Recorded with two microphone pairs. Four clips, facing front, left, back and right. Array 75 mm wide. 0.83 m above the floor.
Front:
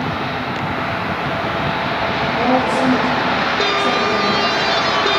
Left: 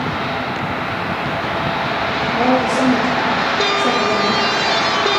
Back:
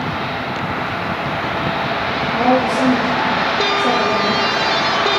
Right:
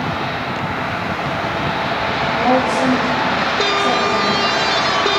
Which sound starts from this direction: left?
A woman speaking, at 2.3 s.